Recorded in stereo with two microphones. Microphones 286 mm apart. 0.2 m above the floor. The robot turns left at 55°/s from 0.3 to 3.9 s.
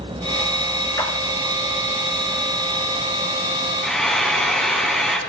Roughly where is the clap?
Centre.